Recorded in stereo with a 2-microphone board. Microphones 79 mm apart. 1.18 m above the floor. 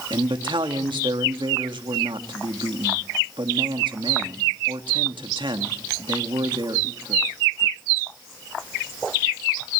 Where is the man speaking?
80° right, 2 m.